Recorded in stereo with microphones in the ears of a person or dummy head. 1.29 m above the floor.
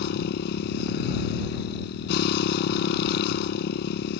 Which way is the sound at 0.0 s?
70° left (ahead or behind).